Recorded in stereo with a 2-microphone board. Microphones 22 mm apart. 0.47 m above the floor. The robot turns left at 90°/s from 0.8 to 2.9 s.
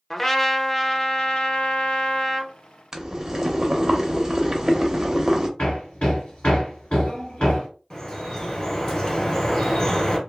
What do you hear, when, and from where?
0.1 s a trumpet: 170° left, 0.5 m; by 2.5 s 15° left, 0.5 m
2.9 s boiling: 25° right (ahead or behind), 0.7 m
5.6 s hammering: 80° left, 1.8 m
7.9 s dripping: 35° left (ahead or behind), 1.4 m